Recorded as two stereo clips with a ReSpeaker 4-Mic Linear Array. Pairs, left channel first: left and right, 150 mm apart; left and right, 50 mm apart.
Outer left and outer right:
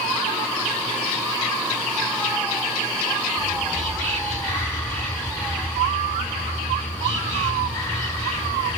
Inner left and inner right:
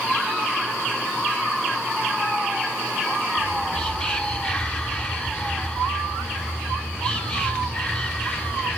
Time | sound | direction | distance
3.4 | whispering | 10° left (ahead or behind) | 1.2 m